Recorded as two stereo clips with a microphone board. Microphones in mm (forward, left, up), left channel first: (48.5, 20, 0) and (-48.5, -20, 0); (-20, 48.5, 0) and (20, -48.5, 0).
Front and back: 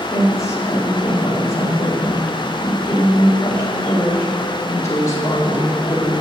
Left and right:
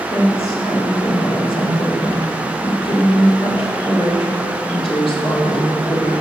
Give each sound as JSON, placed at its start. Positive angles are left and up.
{"t": 0.1, "sound": "a woman speaking", "azimuth_deg": 85, "distance_m": 1.9}